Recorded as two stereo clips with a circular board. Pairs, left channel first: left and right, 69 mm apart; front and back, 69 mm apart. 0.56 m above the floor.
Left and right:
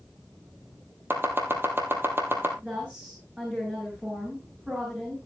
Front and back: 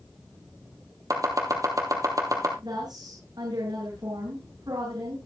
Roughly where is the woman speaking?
Behind.